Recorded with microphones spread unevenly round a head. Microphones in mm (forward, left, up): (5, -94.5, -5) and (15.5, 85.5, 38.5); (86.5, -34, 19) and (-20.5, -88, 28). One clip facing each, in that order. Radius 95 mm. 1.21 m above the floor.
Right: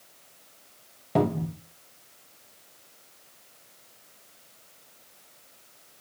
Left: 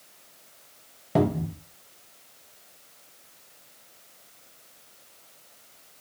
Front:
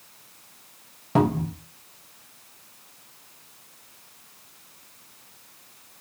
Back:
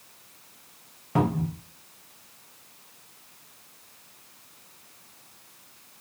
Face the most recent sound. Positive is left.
turn(degrees=55)